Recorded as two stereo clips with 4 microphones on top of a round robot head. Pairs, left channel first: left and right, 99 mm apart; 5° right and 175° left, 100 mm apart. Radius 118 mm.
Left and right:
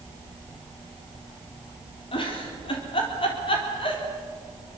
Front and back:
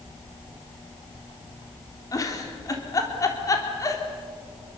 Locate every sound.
2.1 s a giggle: 50° left, 3.5 m